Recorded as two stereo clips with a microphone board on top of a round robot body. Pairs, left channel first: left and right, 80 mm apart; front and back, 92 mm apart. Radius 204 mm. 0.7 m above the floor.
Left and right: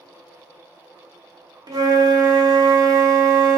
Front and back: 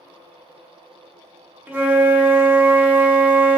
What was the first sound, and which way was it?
A flute, 110° right.